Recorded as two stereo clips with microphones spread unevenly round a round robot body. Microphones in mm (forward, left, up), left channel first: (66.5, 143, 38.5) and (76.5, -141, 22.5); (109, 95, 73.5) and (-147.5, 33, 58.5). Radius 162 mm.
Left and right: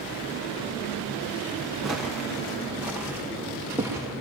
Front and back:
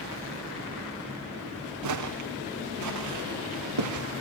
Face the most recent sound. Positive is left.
turn(degrees=-170)